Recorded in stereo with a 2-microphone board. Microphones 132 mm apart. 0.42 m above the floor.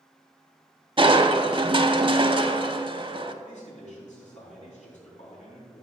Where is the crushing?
40° right (ahead or behind), 0.6 m.